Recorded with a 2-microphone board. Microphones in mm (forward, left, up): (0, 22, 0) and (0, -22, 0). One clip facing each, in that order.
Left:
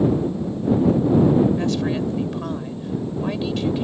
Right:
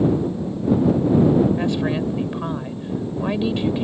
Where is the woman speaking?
20° right (ahead or behind).